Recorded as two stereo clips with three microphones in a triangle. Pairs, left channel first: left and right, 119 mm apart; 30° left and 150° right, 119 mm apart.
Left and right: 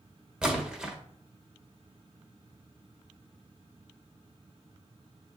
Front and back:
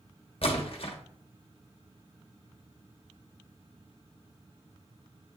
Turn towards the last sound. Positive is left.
turn(degrees=-10)